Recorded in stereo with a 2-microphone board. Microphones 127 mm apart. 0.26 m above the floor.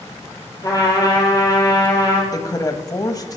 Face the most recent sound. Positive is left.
turn(degrees=30)  # may be behind; listen again after turning